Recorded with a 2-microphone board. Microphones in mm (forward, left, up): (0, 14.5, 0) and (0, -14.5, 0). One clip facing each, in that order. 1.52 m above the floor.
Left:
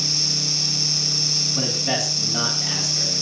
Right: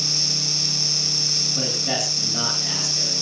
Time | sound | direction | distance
1.6 | a man speaking | 5° left (ahead or behind) | 9.5 m